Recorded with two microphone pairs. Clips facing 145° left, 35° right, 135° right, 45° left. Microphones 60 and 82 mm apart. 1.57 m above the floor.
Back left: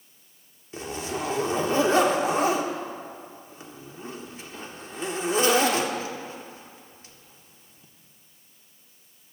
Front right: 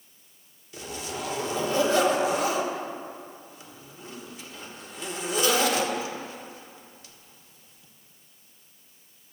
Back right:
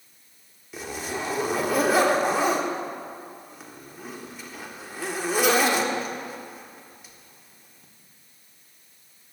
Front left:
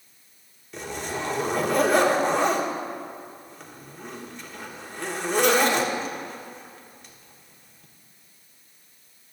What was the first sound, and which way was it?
A zipper, 140° left.